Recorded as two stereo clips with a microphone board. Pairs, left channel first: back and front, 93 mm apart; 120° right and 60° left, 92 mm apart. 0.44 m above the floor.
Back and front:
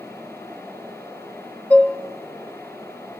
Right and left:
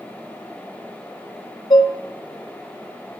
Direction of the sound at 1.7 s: 105° right.